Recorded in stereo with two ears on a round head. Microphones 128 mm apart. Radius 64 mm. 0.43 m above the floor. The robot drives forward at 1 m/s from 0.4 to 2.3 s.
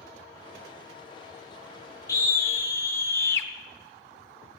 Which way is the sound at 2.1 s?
25° left (ahead or behind).